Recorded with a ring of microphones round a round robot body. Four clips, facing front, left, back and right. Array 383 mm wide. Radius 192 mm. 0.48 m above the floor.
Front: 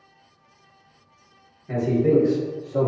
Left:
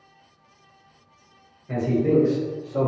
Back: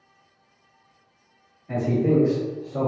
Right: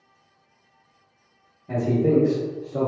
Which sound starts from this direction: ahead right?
A man speaking, at 1.7 s.